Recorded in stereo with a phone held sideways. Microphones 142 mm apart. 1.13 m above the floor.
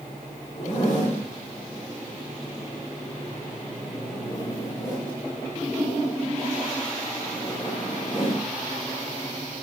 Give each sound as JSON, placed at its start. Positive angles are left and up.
{"t": 0.6, "sound": "a zipper", "side_deg": 55, "distance_m": 3.0}